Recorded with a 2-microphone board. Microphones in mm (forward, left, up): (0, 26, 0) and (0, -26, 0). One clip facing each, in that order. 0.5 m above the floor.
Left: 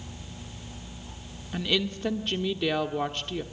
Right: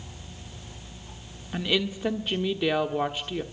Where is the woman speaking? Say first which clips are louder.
Right 1 dB; 10° right (ahead or behind), 1.2 m.